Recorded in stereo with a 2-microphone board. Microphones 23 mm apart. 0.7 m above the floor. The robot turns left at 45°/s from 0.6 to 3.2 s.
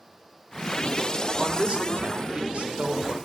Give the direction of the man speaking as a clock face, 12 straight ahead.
1 o'clock.